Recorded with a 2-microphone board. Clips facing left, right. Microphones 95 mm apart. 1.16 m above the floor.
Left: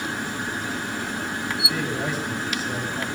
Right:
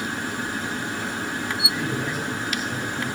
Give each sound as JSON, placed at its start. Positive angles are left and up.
{"t": 1.7, "sound": "a man speaking", "side_deg": 75, "distance_m": 8.5}